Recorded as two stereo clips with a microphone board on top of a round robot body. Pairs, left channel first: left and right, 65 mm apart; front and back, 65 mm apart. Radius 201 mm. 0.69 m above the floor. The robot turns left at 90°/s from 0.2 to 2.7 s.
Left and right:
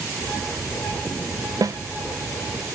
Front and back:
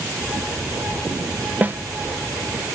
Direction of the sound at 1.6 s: 110° right.